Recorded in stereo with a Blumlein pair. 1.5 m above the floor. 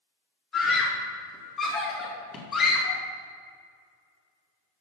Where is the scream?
15° left, 1.9 m.